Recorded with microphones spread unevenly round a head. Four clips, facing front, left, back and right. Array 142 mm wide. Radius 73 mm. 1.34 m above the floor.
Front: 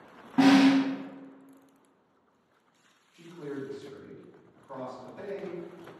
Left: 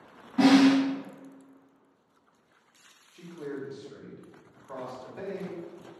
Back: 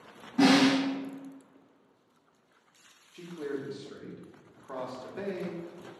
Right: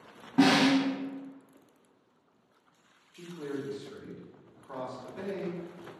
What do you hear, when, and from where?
0.4 s a snare drum: 35° right, 0.9 m
3.1 s a man speaking: 170° right, 0.8 m